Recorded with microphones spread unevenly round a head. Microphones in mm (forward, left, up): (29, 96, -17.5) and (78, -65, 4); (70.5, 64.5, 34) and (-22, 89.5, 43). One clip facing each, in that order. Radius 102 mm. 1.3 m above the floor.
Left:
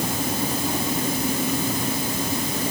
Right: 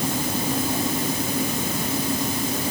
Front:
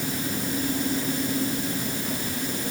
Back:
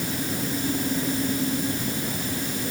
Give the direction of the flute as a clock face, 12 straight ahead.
No flute in this recording.